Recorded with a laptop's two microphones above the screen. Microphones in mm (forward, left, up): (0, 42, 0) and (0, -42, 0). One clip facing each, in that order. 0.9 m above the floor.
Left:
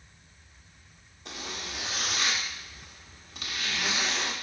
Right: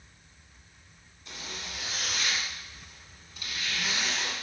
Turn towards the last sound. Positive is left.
turn(degrees=75)  # may be behind; listen again after turning